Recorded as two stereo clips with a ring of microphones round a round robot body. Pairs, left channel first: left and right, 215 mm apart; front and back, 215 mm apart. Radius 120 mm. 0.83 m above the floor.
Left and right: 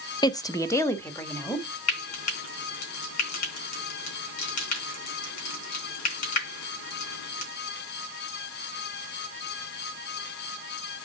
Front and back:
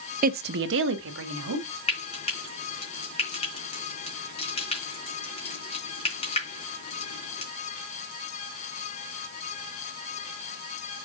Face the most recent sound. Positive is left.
turn(degrees=65)